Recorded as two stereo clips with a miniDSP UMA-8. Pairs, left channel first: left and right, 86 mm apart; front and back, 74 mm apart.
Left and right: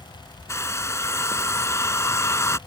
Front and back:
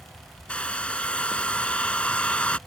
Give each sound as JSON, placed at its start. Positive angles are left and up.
{"t": 0.5, "sound": "a hair dryer", "azimuth_deg": 65}